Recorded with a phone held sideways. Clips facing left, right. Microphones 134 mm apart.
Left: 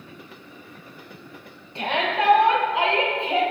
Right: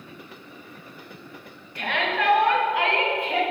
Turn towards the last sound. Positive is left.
turn(degrees=25)  # may be behind; listen again after turning